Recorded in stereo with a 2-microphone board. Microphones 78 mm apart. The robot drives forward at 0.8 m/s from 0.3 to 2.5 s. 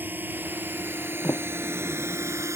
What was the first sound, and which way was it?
A drone, 25° right (ahead or behind).